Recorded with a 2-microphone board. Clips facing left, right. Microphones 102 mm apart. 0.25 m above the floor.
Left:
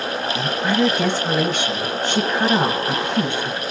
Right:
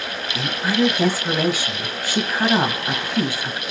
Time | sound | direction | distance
0.3 | a woman speaking | 5° right (ahead or behind) | 1.4 m